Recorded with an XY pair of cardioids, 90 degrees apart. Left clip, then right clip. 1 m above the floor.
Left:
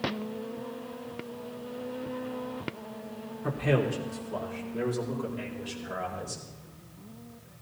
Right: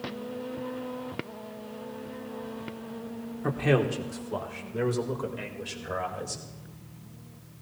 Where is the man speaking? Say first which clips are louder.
Right 2 dB; 45° right, 2.5 m; by 6.4 s 40° right, 4 m.